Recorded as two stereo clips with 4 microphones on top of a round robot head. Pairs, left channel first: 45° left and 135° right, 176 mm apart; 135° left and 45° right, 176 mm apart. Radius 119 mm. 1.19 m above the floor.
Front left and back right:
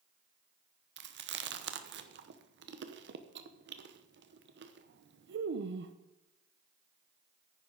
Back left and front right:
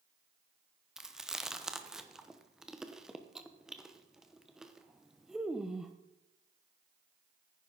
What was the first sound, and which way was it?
Chewing, 130° right.